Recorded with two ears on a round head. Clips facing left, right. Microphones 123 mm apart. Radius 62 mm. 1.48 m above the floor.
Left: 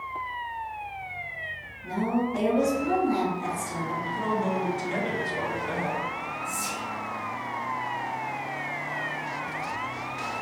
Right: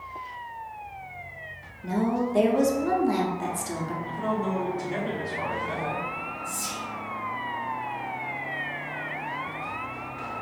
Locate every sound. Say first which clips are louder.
1.8 s a woman speaking: right 1 dB; 60° right (ahead or behind), 0.7 m
4.0 s a man speaking: left 1 dB; 80° left, 1.1 m
6.4 s whispering: left 2 dB; 15° left (ahead or behind), 1.6 m